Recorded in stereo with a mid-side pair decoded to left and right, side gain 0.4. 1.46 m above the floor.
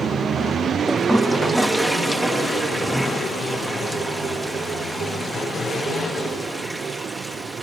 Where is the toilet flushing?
5° right.